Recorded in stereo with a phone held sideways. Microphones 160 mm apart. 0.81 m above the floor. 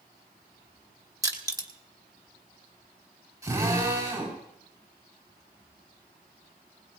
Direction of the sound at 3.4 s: 20° right (ahead or behind).